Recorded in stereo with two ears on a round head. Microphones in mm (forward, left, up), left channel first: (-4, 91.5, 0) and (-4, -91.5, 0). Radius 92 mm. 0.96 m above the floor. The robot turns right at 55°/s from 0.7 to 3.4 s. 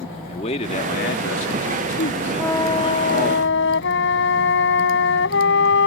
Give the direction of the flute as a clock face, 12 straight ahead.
12 o'clock.